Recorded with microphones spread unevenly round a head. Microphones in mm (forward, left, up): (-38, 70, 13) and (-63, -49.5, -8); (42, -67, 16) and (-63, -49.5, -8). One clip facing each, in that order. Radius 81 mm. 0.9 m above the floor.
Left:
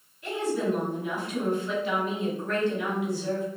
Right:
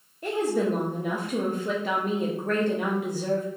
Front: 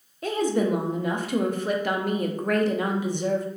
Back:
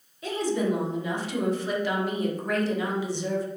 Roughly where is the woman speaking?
Ahead right.